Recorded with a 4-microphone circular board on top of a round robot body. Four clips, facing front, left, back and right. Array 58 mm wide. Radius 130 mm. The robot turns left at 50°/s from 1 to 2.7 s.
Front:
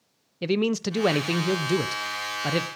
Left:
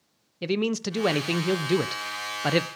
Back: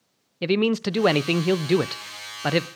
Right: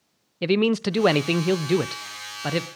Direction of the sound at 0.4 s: 130° right.